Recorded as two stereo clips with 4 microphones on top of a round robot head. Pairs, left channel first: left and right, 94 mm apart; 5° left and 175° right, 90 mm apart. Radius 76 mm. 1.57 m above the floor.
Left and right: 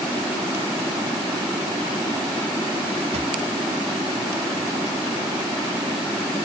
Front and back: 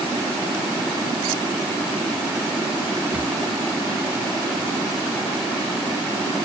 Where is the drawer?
95° right.